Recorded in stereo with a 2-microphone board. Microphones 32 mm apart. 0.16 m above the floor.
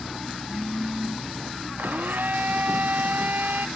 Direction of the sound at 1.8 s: 70° right (ahead or behind).